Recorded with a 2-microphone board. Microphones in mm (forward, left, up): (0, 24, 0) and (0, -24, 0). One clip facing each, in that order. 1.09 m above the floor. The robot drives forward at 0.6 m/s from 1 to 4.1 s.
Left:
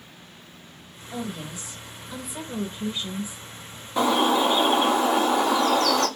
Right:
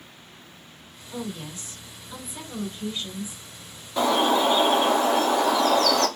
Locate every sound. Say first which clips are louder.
1.1 s a woman speaking: left 1 dB; 15° left (ahead or behind), 2 m; by 3.4 s 40° left (ahead or behind), 0.8 m
4.0 s a bird: even; 10° left (ahead or behind), 1.6 m